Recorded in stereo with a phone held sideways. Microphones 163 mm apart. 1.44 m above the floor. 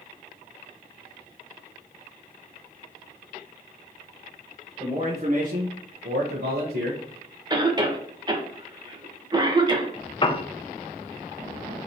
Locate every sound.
4.8 s a man speaking: 30° right (ahead or behind), 1.1 m; by 7.4 s 55° right (ahead or behind), 1.6 m
7.5 s a cough: 25° right (ahead or behind), 1.3 m
10.2 s a piano: 30° left (ahead or behind), 0.6 m